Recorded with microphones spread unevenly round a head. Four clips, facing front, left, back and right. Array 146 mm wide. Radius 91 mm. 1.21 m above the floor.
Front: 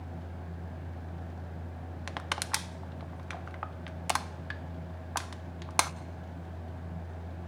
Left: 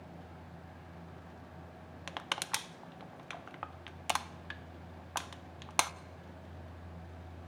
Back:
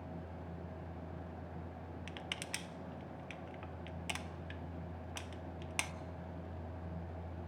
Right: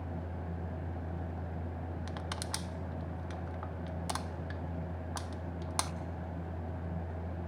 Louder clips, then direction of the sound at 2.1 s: Left 6 dB, front 13 dB; 25° left.